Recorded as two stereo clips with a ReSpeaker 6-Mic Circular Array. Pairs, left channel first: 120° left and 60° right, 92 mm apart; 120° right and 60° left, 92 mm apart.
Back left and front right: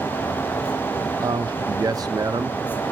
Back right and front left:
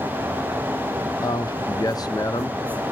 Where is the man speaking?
90° right, 1.2 m.